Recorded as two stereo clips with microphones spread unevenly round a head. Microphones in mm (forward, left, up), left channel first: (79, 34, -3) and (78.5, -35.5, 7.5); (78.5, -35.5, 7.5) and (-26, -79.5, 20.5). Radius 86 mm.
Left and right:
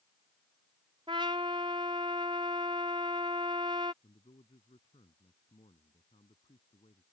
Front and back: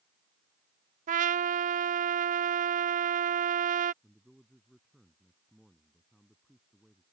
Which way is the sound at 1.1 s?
155° right.